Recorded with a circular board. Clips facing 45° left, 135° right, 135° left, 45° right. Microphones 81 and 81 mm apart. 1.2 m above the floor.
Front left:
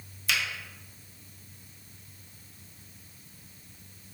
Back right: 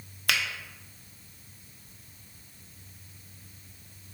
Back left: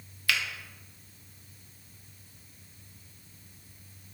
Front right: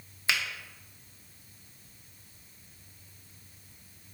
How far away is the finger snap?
About 0.7 m.